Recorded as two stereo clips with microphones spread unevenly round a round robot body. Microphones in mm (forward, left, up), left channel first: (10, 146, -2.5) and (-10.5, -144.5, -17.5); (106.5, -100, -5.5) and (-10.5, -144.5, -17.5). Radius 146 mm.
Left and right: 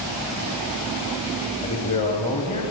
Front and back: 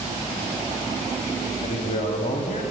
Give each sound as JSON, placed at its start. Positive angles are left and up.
{"t": 1.6, "sound": "a man speaking", "azimuth_deg": 20, "distance_m": 1.6}